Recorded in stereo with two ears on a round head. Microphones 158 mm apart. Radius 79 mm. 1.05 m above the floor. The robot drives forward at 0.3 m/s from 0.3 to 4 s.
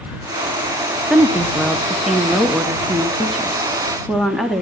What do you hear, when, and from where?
1.1 s a woman speaking: centre (ahead or behind), 0.9 m